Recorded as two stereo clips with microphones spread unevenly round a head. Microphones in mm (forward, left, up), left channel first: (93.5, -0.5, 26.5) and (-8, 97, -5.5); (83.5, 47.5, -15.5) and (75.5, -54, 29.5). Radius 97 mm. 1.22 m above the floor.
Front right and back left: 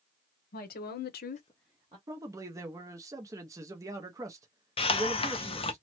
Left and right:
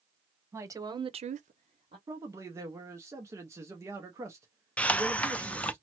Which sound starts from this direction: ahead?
A hiss, at 4.8 s.